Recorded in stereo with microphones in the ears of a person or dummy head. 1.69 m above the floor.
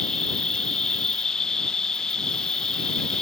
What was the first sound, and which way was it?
An insect, centre (ahead or behind).